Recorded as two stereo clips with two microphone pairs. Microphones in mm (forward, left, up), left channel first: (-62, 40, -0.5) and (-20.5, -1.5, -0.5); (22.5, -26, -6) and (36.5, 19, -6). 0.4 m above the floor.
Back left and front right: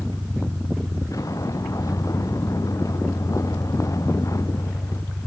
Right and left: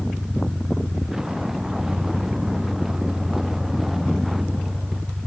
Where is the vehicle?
150° left; by 5.3 s 160° left.